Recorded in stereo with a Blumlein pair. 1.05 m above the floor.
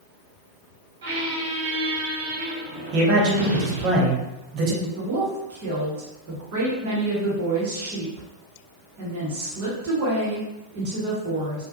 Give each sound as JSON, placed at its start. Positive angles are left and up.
{"t": 1.0, "sound": "a squeak", "azimuth_deg": -60, "distance_m": 0.7}
{"t": 2.9, "sound": "a man speaking", "azimuth_deg": -40, "distance_m": 0.8}
{"t": 5.0, "sound": "a woman speaking", "azimuth_deg": -50, "distance_m": 1.2}